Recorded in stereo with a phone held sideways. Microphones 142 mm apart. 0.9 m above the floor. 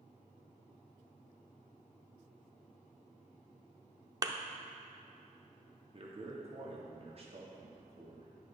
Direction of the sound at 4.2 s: 25° right (ahead or behind).